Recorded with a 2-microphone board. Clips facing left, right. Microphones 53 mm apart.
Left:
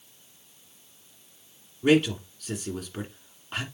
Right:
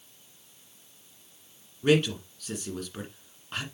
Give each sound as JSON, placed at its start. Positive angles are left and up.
{"t": 1.8, "sound": "a man speaking", "side_deg": 5, "distance_m": 1.7}